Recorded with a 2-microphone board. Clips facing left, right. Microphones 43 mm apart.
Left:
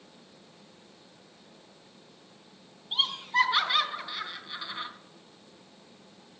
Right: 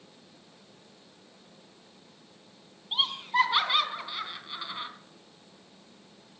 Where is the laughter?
15° right (ahead or behind), 3.5 m.